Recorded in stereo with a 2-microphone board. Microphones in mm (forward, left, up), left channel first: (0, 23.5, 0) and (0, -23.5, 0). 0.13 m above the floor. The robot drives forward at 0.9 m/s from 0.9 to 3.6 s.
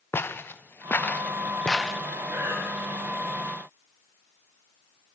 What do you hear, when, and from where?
0.1 s footsteps: 55° left (ahead or behind), 1.9 m; by 2.0 s 5° left (ahead or behind), 1.4 m
2.3 s breathing: 85° right, 8.5 m